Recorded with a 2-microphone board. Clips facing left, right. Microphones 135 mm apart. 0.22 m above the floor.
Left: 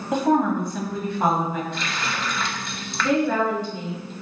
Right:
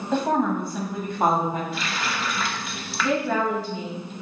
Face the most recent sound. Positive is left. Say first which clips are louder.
# left 3 dB
turn(degrees=0)  # may be behind; listen again after turning